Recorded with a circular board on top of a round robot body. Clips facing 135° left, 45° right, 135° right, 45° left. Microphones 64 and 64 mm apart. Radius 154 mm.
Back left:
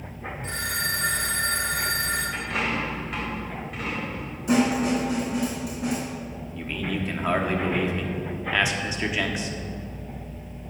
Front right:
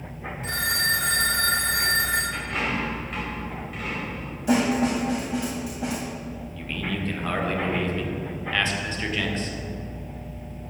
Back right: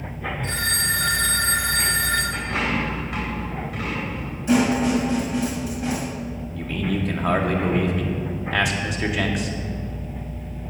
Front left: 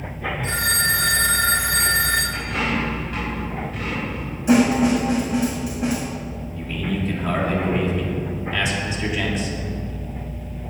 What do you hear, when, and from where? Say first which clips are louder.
0.4 s a phone ringing: front right 4 dB, front left 4 dB; 35° right, 0.7 m
2.3 s a dropped coin: even, even; 140° right, 3 m
4.5 s a snare drum: even, front left 3 dB; 30° right, 1.2 m
6.5 s a man speaking: back left 2 dB, back right 1 dB; 150° right, 1.4 m